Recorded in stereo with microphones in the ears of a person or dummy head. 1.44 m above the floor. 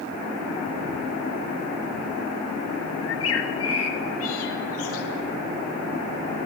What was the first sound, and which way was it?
A bird, 85° left.